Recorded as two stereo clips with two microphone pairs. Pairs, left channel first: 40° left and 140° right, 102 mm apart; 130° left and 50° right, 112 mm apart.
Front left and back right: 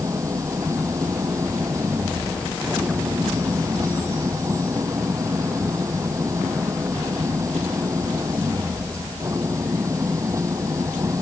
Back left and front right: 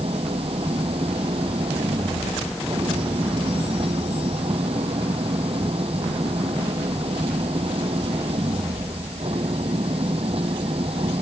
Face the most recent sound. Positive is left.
turn(degrees=-80)